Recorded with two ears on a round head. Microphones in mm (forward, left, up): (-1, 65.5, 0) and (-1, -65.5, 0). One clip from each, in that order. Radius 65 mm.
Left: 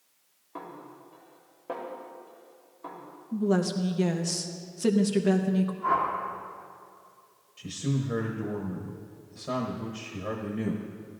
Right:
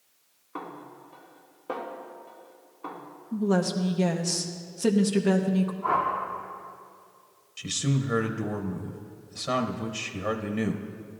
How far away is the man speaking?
About 0.7 m.